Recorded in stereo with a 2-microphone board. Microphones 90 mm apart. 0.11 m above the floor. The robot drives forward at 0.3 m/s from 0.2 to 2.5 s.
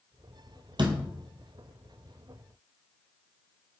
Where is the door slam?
60° right (ahead or behind), 1.6 m; by 1.0 s 55° right (ahead or behind), 1.6 m.